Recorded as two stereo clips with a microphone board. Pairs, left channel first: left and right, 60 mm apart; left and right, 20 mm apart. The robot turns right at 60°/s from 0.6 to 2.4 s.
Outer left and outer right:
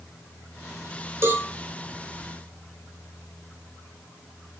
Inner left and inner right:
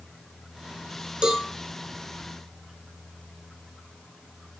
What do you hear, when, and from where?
1.2 s a cowbell: 55° right (ahead or behind), 0.7 m; by 1.5 s 50° right (ahead or behind), 0.7 m